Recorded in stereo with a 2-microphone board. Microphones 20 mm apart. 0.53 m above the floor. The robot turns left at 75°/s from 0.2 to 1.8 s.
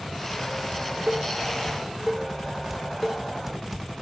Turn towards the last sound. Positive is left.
turn(degrees=-10)  # may be behind; listen again after turning